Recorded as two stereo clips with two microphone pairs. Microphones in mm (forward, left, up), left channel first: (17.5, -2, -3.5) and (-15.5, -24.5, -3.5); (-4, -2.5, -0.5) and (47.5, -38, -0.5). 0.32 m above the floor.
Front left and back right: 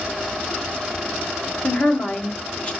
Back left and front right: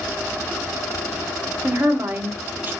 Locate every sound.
1.6 s a woman speaking: 5° right, 1.1 m